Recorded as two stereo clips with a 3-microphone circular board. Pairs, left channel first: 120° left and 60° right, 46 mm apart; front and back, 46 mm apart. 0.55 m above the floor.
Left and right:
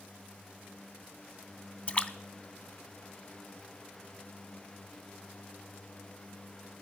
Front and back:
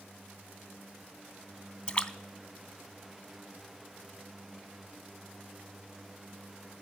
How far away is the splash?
About 0.7 m.